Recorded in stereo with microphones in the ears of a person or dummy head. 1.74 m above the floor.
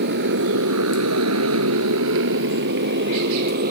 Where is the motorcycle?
55° right (ahead or behind); by 3.7 s 50° right (ahead or behind).